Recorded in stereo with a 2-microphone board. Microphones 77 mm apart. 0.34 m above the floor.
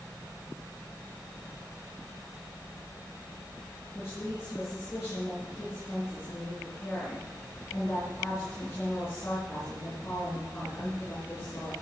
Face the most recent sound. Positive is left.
turn(degrees=30)  # may be behind; listen again after turning